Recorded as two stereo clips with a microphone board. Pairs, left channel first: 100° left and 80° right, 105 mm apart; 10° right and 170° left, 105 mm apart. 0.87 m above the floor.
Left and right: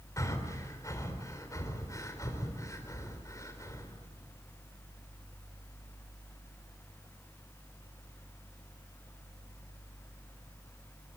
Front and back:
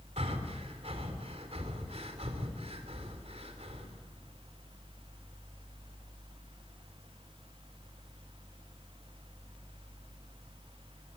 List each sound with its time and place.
0.2 s breathing: 160° left, 3.5 m